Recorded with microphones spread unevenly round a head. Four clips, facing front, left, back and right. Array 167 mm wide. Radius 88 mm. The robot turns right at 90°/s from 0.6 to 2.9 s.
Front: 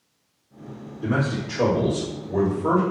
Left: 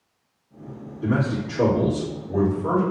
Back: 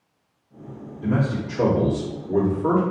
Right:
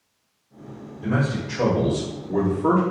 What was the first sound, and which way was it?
A man speaking, 95° left.